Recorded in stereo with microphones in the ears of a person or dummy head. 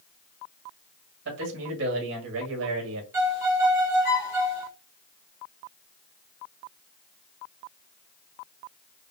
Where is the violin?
10° right (ahead or behind), 1.3 m.